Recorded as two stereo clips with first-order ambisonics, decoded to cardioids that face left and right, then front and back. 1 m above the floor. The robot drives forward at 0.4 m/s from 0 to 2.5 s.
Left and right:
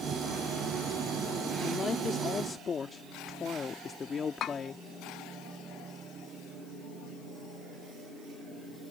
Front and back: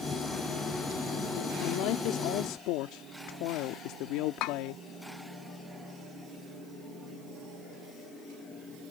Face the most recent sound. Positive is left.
turn(degrees=35)